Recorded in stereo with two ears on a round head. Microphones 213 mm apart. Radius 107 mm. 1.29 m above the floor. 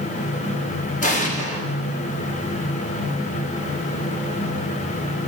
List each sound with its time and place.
1.0 s an explosion: 30° left (ahead or behind), 1.3 m